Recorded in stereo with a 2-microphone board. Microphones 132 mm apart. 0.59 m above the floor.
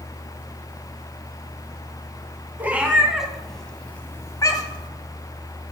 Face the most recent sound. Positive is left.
turn(degrees=40)  # may be behind; listen again after turning